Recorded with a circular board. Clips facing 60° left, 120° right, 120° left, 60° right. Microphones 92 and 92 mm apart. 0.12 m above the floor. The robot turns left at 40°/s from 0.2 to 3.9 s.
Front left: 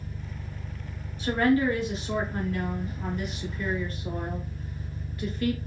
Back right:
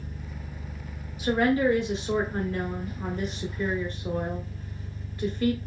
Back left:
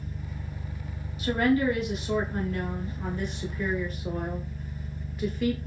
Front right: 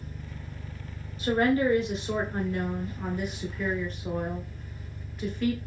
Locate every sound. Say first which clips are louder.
0.0 s an engine running: even, back left 3 dB; 170° right, 1.4 m; by 5.7 s 40° left, 1.4 m
1.2 s a woman speaking: even, even; 50° right, 1.2 m; by 5.6 s 155° right, 1.2 m